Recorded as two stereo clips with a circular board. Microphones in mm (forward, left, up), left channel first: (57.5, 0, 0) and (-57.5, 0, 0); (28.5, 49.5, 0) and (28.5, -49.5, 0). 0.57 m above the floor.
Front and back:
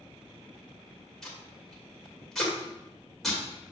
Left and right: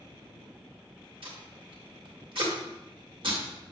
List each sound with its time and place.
1.2 s tape being pulled: 85° right, 2 m